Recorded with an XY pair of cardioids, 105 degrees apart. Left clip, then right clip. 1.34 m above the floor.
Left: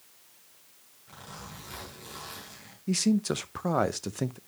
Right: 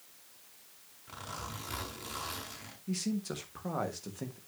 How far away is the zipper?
About 5 m.